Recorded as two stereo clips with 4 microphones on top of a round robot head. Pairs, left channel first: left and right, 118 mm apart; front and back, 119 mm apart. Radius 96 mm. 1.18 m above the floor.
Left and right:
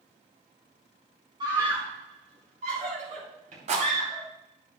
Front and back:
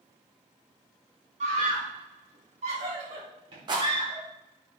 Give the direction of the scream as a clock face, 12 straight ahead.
5 o'clock.